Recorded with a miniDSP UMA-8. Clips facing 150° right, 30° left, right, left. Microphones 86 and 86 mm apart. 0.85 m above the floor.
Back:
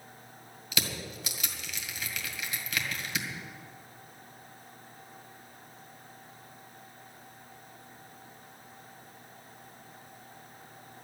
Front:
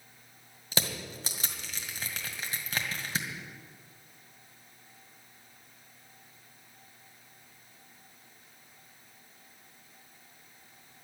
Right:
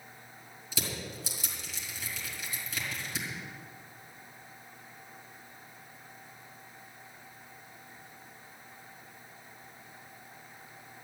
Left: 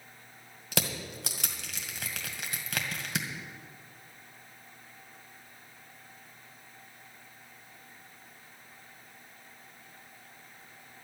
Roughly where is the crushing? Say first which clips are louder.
Front 1 dB, left 4 dB; left.